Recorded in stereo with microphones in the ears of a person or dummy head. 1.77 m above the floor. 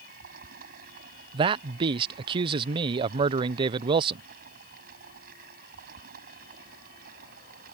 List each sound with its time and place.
0.0 s running water: 55° right (ahead or behind)
1.3 s a man speaking: 30° right (ahead or behind)